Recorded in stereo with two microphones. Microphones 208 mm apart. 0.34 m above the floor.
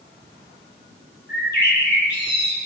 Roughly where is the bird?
Left.